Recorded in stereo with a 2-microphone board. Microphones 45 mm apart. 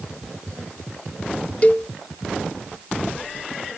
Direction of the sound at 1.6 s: 30° left (ahead or behind).